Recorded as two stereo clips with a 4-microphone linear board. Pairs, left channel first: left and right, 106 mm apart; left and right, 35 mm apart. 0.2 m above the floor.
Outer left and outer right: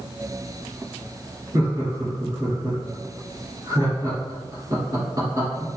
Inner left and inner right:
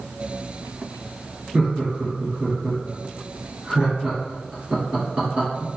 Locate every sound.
1.5 s laughter: 30° right (ahead or behind), 1.6 m